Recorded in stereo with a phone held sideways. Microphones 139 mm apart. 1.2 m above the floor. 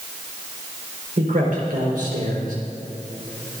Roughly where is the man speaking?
Right.